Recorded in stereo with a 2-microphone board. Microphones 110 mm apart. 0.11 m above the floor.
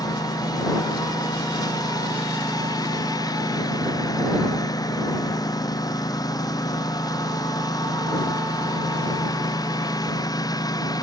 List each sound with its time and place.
0.0 s a lawn mower: 35° left (ahead or behind)